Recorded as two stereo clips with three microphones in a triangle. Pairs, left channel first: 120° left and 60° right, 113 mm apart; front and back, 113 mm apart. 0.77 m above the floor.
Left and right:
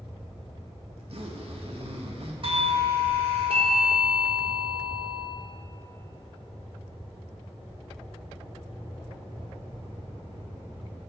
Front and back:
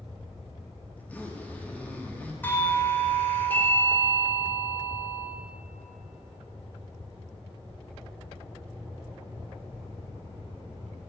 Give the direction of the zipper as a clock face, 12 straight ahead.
2 o'clock.